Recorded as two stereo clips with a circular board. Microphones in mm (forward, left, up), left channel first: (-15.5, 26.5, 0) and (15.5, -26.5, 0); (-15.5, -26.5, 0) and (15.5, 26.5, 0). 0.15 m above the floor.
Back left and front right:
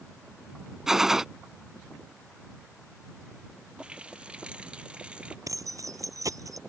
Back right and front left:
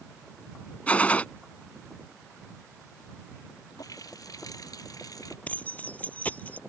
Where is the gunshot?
130° right.